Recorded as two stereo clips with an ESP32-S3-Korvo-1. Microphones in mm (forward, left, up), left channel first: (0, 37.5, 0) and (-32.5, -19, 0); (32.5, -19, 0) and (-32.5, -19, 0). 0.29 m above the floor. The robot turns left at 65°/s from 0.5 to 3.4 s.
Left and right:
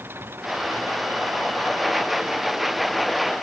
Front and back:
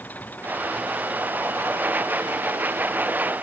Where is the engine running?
65° right; by 3.4 s 110° left.